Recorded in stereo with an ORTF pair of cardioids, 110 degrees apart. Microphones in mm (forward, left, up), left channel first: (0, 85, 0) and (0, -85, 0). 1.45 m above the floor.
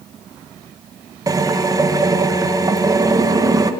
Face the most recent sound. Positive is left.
turn(degrees=-20)